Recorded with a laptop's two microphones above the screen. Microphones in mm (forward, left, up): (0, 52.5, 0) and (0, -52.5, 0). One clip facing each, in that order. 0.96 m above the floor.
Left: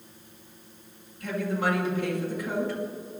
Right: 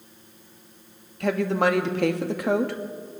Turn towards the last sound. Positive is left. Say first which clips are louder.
# right 6 dB
turn(degrees=-75)  # may be behind; listen again after turning